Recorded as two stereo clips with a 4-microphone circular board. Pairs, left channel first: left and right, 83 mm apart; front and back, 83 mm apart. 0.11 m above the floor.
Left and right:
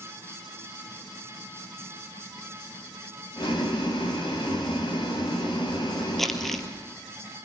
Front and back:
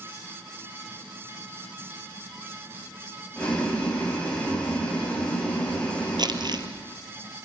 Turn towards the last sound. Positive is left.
turn(degrees=175)